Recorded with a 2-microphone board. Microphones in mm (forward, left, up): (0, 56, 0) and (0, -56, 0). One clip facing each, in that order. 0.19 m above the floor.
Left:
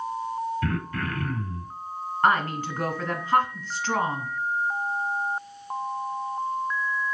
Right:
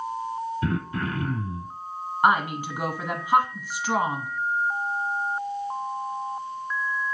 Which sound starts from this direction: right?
Throat clearing, at 0.6 s.